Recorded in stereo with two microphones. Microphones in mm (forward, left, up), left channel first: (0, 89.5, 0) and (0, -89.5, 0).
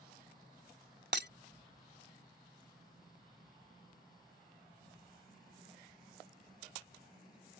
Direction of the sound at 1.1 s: 75° right (ahead or behind).